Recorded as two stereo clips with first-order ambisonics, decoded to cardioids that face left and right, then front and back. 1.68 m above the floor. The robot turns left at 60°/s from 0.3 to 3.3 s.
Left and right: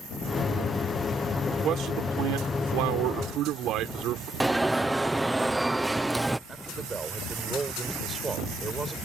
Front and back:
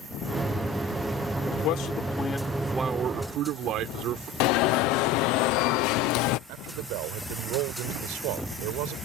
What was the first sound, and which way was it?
A man speaking, 25° right.